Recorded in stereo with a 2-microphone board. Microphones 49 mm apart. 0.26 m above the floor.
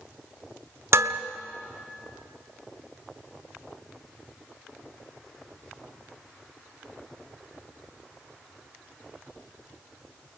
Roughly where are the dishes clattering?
Right.